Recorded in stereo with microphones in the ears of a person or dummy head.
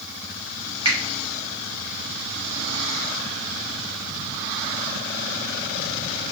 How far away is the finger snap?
About 1.2 m.